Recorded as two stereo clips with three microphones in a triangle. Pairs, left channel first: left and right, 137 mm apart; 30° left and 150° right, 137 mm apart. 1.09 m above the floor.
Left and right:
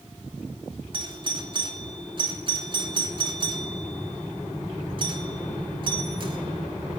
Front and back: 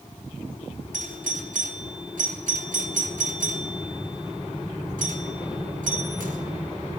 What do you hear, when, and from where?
0.9 s a doorbell: 140° right, 3 m